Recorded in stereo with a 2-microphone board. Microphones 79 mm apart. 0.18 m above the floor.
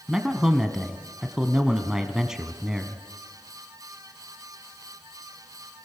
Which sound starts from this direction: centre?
A man speaking, at 0.1 s.